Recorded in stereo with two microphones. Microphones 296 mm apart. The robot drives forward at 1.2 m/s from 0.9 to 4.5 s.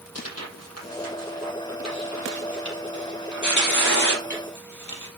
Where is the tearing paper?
55° left (ahead or behind), 7.5 m; by 5.1 s 80° left, 6 m.